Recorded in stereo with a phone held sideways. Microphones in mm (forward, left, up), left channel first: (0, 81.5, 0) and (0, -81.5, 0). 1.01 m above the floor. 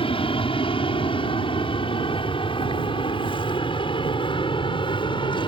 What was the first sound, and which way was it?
An aircraft, 35° left (ahead or behind).